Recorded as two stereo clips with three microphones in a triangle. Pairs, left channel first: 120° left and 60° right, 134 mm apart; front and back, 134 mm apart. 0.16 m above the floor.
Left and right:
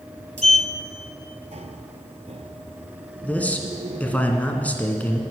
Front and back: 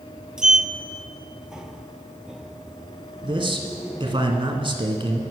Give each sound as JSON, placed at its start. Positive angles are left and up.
{"t": 0.4, "sound": "a sliding door", "azimuth_deg": -95, "distance_m": 0.6}
{"t": 3.2, "sound": "a man speaking", "azimuth_deg": -165, "distance_m": 1.3}